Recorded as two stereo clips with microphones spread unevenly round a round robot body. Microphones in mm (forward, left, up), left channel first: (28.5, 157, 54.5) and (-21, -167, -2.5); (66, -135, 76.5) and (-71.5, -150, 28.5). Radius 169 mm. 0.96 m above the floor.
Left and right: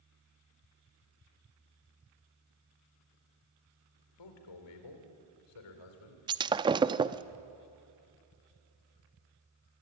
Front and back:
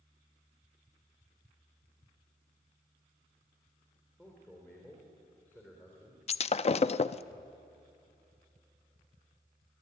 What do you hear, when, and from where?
4.2 s a man speaking: 90° left, 4 m
6.3 s breaking glass: 20° right, 0.5 m